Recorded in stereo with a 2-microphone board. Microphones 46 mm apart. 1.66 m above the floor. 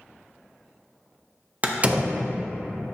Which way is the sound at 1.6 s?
30° right (ahead or behind).